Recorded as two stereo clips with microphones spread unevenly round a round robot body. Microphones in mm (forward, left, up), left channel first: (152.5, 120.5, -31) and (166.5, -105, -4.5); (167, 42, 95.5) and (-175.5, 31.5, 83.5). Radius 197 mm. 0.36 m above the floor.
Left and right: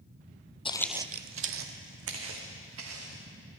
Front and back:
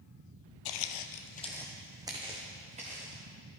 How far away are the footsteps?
About 0.8 m.